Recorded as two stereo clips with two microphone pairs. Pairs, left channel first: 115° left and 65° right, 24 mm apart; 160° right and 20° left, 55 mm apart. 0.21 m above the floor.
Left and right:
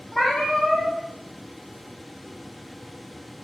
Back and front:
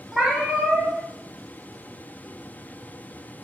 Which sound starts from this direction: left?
A cat meowing, at 0.1 s.